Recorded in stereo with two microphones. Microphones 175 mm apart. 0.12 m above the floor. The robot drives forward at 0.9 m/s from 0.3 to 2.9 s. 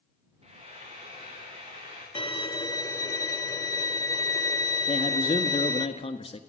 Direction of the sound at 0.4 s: 35° right (ahead or behind).